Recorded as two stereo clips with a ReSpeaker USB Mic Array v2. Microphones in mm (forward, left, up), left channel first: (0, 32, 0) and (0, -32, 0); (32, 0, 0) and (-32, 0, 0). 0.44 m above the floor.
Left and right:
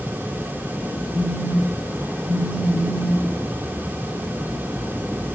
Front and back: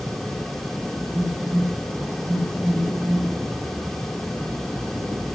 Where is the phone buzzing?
155° right, 2.5 m.